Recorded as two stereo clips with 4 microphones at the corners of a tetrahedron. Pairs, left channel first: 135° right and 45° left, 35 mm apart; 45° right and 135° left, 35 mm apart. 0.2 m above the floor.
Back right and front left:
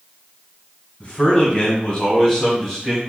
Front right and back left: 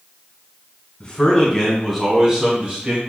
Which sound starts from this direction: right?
A man speaking, at 1.0 s.